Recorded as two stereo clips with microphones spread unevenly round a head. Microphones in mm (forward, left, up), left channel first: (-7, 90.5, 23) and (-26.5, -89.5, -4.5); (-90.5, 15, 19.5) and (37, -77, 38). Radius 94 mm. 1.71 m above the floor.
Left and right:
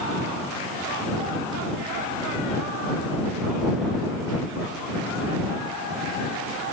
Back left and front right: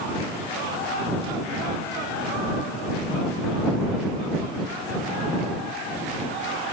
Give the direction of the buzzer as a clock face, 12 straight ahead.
I don't hear a buzzer.